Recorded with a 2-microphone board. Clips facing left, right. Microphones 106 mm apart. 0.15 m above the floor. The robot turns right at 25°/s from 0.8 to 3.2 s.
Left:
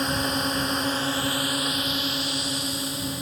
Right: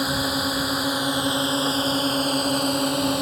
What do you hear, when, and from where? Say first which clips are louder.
0.0 s a drone: right 2 dB; 170° right; by 3.2 s 110° right